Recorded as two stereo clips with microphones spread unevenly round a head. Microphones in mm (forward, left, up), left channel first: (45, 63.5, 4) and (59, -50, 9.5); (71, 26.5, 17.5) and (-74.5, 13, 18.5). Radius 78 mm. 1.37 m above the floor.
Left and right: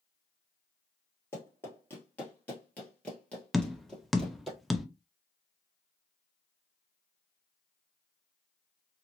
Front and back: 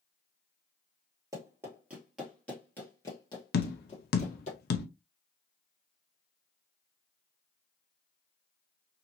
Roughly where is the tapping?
Ahead.